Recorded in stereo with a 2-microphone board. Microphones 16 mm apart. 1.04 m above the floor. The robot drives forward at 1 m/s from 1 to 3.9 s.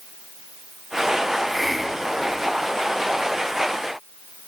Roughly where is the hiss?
Centre.